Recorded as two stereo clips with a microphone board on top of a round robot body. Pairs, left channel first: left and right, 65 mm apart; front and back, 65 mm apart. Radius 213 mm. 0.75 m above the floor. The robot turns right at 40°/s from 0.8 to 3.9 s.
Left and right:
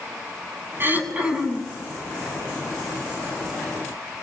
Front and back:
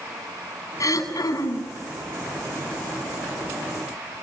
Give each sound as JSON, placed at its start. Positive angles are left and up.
{"t": 0.8, "sound": "throat clearing", "azimuth_deg": -35, "distance_m": 8.0}